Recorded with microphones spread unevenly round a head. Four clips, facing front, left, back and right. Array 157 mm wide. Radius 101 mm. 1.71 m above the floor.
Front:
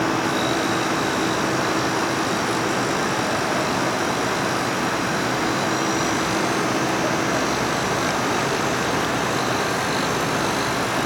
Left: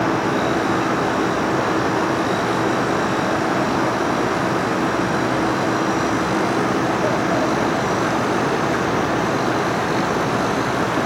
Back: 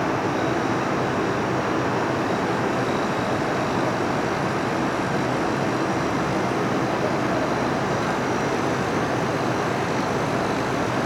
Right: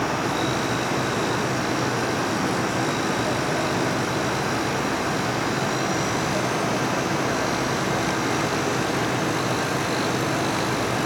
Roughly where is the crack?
I don't hear a crack.